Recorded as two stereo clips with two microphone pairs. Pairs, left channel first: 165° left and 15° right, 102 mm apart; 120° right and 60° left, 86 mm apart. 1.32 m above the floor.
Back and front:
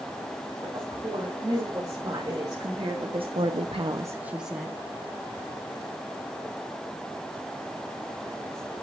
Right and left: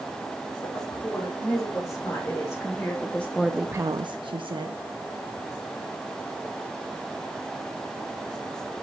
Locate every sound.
0.6 s a woman speaking: 70° right, 5 m; by 4.8 s 80° left, 1.7 m